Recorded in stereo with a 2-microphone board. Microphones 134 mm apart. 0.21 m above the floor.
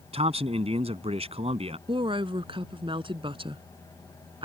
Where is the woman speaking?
40° right (ahead or behind).